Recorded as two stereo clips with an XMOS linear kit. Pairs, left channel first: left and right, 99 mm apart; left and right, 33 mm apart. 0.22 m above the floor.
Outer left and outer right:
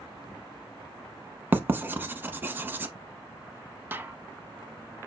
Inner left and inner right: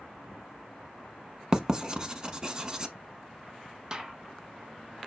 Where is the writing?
20° right (ahead or behind), 0.7 m.